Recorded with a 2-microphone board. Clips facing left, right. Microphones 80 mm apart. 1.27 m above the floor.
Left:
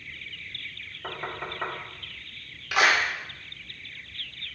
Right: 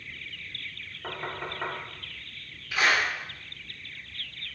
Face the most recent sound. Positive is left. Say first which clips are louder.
# left 3 dB
turn(degrees=75)  # may be behind; listen again after turning